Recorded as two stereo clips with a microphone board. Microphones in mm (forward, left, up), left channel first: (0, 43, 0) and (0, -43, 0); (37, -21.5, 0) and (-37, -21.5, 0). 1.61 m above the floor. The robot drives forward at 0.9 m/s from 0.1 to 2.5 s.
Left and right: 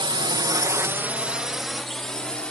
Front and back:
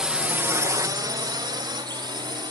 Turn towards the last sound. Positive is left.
turn(degrees=170)